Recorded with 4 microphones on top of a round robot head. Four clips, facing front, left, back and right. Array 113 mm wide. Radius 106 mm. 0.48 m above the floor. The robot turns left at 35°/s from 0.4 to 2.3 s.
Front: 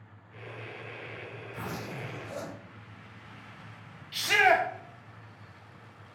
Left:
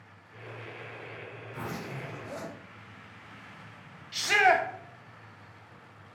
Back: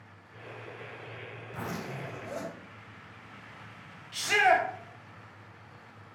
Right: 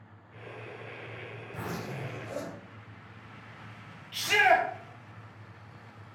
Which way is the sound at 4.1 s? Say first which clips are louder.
Even, even; 75° left.